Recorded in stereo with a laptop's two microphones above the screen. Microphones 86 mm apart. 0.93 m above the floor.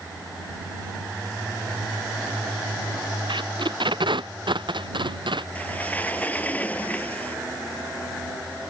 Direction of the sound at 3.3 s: 80° right.